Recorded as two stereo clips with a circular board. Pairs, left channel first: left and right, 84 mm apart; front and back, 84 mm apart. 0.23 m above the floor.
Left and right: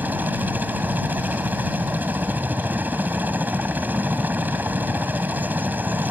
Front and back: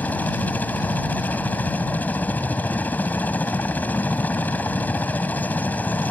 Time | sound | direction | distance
0.0 | a helicopter | 50° right | ?